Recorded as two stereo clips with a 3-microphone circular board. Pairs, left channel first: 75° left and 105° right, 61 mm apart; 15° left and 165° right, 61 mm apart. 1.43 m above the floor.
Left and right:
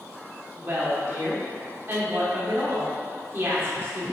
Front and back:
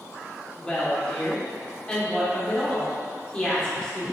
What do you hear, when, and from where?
0.6 s a woman speaking: 55° right, 1.4 m